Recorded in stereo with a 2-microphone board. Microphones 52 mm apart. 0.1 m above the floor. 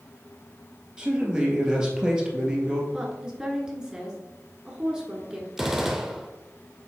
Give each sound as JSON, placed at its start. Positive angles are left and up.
{"t": 1.0, "sound": "a man speaking", "side_deg": -15, "distance_m": 1.9}
{"t": 2.9, "sound": "a woman speaking", "side_deg": -15, "distance_m": 1.3}
{"t": 5.6, "sound": "a gunshot", "side_deg": -5, "distance_m": 0.8}